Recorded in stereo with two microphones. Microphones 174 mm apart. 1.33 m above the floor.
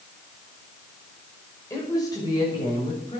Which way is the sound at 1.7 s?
20° left (ahead or behind).